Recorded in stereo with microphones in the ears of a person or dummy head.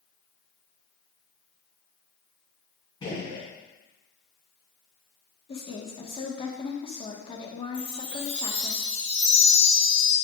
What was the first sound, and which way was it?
A gunshot, 25° left (ahead or behind).